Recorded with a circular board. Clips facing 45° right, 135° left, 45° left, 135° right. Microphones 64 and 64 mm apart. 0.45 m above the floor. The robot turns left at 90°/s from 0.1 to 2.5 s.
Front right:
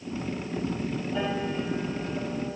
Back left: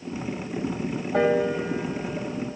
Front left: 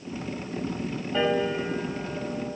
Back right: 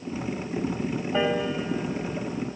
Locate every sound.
1.1 s a piano: 155° left, 1.9 m; by 2.6 s 30° left, 1.9 m